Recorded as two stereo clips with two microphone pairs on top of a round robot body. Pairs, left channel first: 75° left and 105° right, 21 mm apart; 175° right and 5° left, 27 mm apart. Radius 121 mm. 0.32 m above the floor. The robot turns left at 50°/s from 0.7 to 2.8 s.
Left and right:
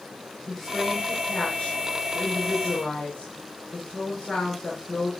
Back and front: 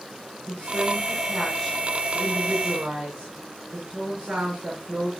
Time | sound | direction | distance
0.5 | a woman speaking | 145° left | 6 m